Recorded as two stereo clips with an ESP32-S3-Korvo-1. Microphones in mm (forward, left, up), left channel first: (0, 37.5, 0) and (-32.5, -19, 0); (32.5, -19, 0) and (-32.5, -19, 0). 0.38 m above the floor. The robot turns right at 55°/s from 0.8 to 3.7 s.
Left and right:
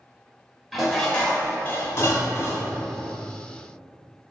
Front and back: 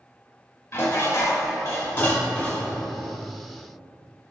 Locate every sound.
0.7 s dishes clattering: 30° right, 0.8 m; by 2.8 s 80° left, 0.8 m